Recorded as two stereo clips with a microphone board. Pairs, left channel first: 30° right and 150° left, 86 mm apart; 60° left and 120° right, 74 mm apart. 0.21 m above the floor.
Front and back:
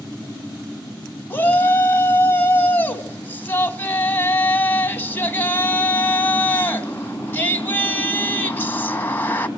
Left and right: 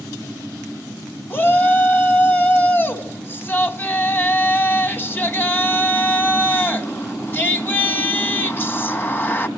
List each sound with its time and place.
1.3 s a shout: 20° left, 1.5 m